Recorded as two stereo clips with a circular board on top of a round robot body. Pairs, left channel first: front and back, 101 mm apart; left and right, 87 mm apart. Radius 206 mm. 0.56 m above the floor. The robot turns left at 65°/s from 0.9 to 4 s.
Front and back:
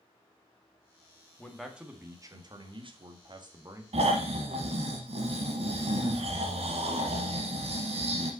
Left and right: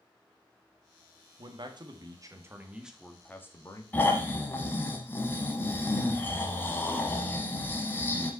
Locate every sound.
1.4 s a man speaking: 75° right, 1.8 m; by 3.8 s 125° left, 1.8 m
3.9 s snoring: 160° left, 0.9 m; by 8.3 s 155° left, 0.9 m